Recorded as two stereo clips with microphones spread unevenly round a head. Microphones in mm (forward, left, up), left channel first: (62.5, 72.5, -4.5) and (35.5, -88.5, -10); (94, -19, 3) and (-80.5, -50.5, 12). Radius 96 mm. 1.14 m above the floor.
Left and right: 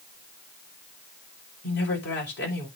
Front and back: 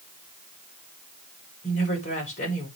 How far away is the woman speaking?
About 5 m.